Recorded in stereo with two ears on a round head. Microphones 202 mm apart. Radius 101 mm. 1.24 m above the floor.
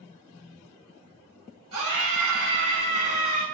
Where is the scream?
80° right, 6 m; by 3.4 s 90° right, 6.5 m.